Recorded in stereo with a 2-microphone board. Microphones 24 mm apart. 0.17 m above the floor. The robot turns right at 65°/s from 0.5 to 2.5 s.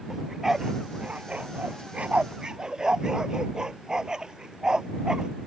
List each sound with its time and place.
0.1 s a dog barking: 15° right (ahead or behind); by 5.3 s 30° right (ahead or behind)